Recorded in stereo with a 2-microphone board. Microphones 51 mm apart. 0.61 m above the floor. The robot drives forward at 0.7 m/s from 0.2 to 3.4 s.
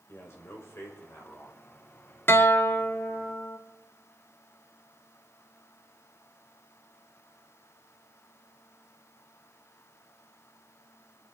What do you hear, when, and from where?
0.1 s a man speaking: 55° left (ahead or behind), 3 m; by 1.6 s 65° left (ahead or behind), 3 m
2.3 s a guitar: 45° left (ahead or behind), 0.9 m; by 3.6 s 30° left (ahead or behind), 1.3 m